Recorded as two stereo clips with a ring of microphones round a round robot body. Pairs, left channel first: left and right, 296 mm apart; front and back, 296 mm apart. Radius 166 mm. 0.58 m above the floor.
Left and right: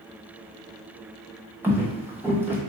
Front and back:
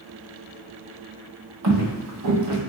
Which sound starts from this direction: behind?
Footsteps, at 1.6 s.